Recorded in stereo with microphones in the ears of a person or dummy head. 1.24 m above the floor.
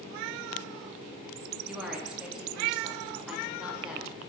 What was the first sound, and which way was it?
A woman speaking, 5° right (ahead or behind).